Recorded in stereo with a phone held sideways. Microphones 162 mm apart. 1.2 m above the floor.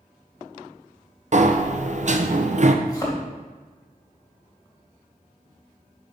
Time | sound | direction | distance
1.3 | a sliding door | 55° right (ahead or behind) | 0.6 m
2.9 | a thud | 25° left (ahead or behind) | 2.5 m